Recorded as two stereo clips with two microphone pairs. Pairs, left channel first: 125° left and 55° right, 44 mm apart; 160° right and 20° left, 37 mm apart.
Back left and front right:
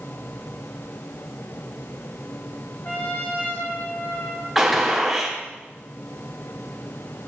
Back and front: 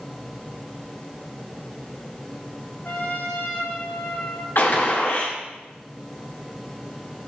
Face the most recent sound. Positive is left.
turn(degrees=-140)